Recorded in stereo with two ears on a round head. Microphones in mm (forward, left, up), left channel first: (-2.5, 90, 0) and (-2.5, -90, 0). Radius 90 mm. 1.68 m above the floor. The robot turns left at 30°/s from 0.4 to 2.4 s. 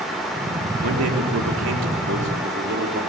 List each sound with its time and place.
0.8 s a man speaking: 80° right, 4.5 m; by 3.0 s 125° right, 4.5 m